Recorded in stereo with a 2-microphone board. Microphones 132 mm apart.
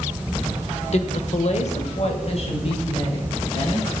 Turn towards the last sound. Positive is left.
turn(degrees=45)  # may be behind; listen again after turning